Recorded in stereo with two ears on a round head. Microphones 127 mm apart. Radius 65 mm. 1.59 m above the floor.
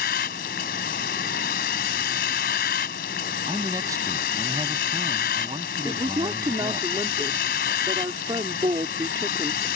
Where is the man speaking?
25° right (ahead or behind).